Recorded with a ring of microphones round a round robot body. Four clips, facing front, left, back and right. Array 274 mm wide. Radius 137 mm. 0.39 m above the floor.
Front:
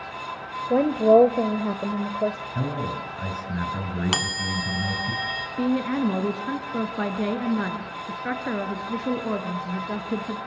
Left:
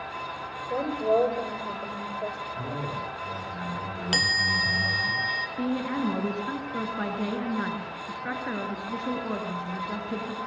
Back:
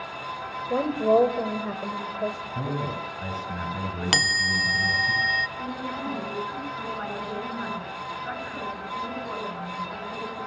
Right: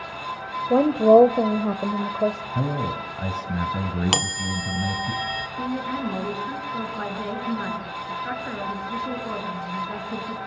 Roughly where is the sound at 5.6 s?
Ahead.